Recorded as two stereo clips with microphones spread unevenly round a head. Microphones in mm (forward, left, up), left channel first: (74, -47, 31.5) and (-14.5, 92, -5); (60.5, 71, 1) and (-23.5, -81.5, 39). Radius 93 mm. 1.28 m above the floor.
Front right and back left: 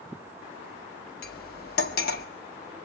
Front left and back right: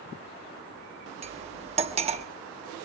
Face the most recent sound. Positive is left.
turn(degrees=-75)